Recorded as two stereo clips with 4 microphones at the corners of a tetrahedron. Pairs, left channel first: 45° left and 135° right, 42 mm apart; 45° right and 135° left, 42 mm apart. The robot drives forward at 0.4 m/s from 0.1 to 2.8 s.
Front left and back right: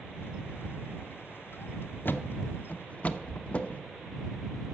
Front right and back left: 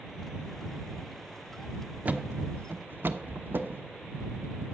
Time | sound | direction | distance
2.0 | a thud | 85° left | 0.9 m